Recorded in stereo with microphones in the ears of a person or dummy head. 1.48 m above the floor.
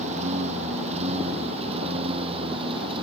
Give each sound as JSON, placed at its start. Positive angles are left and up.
{"t": 0.0, "sound": "a lawn mower", "side_deg": -40}